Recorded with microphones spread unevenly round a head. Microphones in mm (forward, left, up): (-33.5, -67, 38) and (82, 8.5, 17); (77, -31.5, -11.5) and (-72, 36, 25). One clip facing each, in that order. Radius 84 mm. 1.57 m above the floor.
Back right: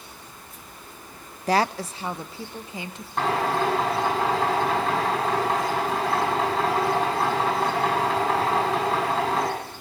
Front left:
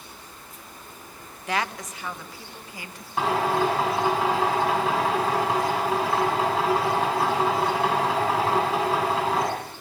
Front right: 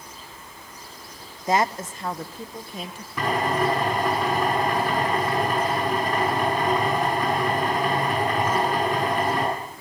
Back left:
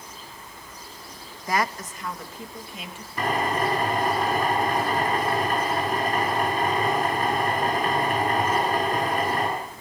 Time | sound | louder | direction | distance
1.5 | a woman speaking | back right 6 dB, front right 4 dB | 90° right | 0.8 m
3.2 | a drill | front left 1 dB, front right 2 dB | 55° right | 8 m